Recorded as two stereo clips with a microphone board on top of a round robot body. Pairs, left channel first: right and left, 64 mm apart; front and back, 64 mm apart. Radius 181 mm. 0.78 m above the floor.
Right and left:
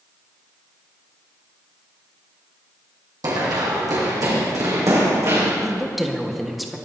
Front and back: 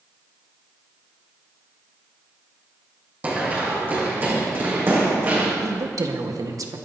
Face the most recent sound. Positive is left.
turn(degrees=180)